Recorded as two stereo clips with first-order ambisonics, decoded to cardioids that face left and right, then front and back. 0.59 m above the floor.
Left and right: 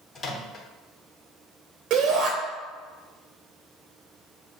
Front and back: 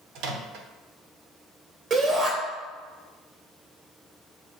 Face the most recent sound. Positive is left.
turn(degrees=-130)